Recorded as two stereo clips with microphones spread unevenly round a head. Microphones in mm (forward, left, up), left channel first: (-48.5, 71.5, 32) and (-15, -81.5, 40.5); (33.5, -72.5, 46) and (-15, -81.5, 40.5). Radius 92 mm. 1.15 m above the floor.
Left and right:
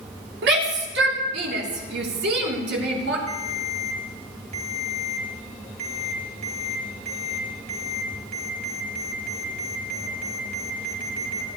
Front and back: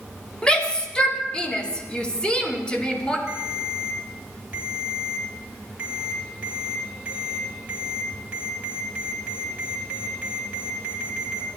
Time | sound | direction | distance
0.4 | a shout | 60° right | 3.5 m
3.3 | a ringtone | 105° right | 4.5 m